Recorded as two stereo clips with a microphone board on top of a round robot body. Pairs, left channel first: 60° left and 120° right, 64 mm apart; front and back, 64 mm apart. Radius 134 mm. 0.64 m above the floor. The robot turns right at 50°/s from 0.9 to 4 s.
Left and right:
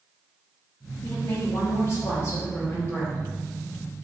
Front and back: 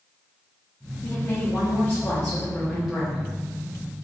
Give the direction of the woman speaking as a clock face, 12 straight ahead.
12 o'clock.